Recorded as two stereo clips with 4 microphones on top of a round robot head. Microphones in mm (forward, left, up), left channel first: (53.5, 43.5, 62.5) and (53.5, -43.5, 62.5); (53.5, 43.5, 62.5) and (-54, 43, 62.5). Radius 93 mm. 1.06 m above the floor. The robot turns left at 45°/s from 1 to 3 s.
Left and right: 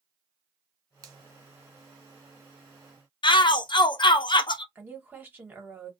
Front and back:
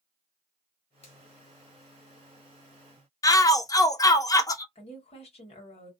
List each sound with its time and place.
1.0 s a finger snap: 40° right, 0.7 m; by 1.2 s 45° right, 0.7 m
3.2 s a shout: 60° left, 0.6 m
4.8 s a woman speaking: 20° right, 1.2 m